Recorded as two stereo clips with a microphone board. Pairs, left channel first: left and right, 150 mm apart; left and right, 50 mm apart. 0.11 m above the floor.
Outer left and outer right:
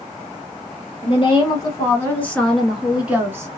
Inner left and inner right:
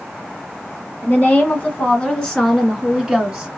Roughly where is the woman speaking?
Left.